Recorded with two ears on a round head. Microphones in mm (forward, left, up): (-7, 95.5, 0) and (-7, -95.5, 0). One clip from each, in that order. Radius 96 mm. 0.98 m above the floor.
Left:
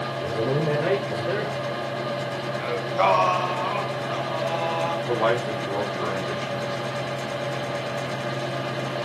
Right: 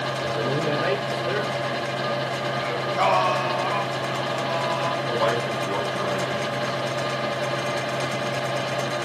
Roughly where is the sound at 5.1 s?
Right.